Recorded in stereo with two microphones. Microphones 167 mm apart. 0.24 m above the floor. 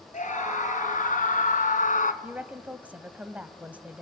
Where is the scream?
50° left (ahead or behind), 4 m; by 2.1 s 55° left (ahead or behind), 2 m.